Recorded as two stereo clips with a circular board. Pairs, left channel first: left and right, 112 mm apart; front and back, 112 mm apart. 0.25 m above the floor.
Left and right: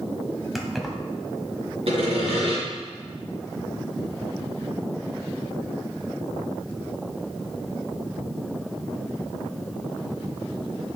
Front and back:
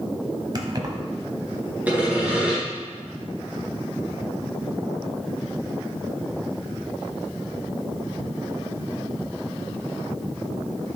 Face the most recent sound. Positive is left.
turn(degrees=-105)